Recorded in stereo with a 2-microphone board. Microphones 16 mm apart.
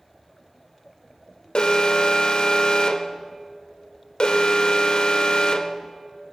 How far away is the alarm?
About 0.7 m.